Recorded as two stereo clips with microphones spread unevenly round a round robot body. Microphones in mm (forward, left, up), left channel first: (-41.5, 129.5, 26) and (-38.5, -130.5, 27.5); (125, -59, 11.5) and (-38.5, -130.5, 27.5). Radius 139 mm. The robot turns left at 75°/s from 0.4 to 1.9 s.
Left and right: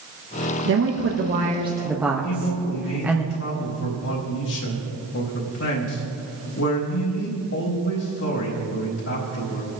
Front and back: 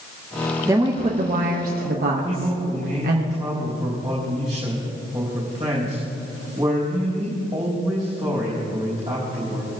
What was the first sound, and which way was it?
A woman speaking, 80° right.